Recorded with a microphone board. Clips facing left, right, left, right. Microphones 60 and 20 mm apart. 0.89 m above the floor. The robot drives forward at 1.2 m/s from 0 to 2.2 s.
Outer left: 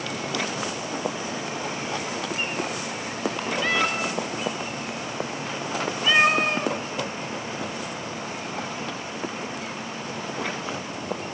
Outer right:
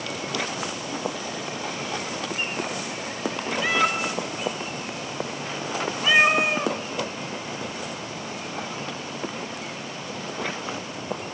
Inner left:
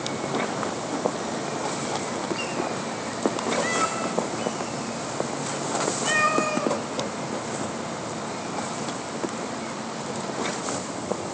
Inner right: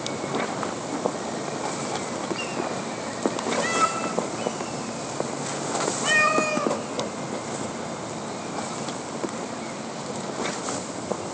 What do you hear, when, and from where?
3.6 s a cat meowing: 5° right (ahead or behind), 0.5 m